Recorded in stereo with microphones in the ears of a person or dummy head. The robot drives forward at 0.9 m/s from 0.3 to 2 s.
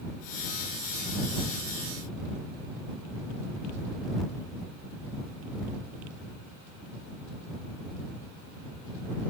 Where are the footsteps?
I don't hear footsteps.